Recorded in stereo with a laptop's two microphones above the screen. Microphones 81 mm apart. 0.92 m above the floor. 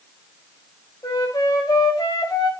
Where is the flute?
50° left (ahead or behind), 6 m.